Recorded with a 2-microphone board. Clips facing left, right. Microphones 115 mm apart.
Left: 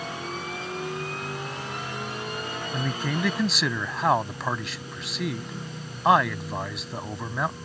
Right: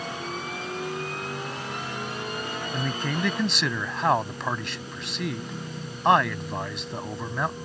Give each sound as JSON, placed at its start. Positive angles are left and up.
{"t": 2.7, "sound": "a man speaking", "side_deg": 0}